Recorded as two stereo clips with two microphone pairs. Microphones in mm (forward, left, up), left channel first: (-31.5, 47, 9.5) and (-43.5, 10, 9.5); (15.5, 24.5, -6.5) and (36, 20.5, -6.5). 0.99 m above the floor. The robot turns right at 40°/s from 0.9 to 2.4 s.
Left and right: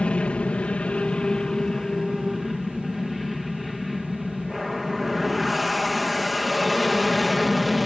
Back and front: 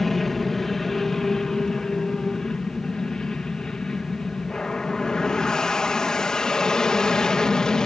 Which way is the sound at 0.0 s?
105° left.